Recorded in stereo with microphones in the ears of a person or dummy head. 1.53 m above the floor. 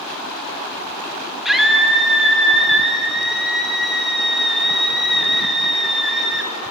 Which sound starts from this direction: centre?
A scream, at 1.4 s.